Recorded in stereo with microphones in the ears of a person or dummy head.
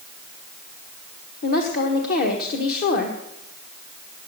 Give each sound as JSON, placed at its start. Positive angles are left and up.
{"t": 1.4, "sound": "a woman speaking", "side_deg": 50, "distance_m": 1.3}